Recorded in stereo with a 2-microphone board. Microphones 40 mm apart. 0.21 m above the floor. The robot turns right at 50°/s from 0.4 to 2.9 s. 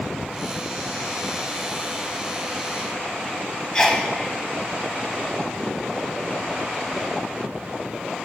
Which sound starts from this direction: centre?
A sneeze, at 3.7 s.